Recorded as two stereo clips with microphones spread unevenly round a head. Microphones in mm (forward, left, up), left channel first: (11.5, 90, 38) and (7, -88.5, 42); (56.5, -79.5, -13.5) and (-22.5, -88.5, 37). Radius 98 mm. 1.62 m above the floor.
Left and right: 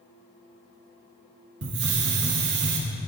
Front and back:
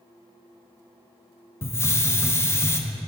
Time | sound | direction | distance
1.6 | a hiss | 75° right | 0.7 m